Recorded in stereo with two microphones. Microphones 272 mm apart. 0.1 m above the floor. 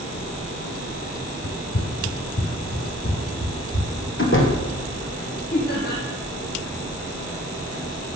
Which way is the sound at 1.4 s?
60° left (ahead or behind).